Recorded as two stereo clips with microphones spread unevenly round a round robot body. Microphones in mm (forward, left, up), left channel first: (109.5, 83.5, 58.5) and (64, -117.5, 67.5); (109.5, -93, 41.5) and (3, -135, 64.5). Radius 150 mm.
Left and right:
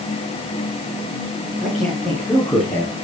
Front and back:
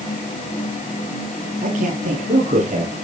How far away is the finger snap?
No finger snap in this recording.